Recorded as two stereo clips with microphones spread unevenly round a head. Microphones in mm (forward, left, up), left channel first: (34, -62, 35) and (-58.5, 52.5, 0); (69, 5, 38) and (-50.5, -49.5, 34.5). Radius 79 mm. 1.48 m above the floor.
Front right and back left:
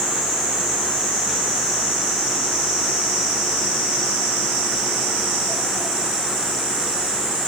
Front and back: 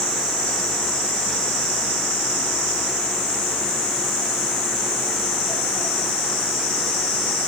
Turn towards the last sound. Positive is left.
No sound to turn to.